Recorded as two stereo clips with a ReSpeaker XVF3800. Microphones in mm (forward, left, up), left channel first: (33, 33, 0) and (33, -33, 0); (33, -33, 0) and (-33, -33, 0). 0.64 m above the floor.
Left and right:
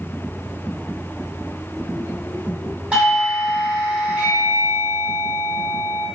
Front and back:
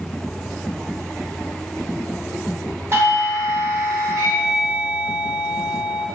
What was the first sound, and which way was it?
A doorbell, 150° right.